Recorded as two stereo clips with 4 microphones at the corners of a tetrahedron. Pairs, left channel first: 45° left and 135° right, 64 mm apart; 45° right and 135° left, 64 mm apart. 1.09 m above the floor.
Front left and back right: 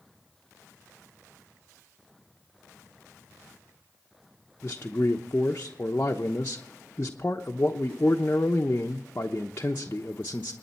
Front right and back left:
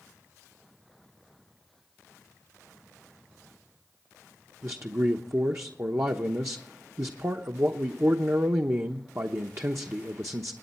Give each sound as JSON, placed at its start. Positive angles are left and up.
{"t": 4.6, "sound": "a man speaking", "azimuth_deg": 95, "distance_m": 0.9}